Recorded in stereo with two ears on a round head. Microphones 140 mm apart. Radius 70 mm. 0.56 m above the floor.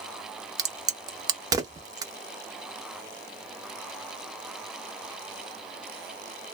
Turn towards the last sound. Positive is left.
turn(degrees=-25)  # may be behind; listen again after turning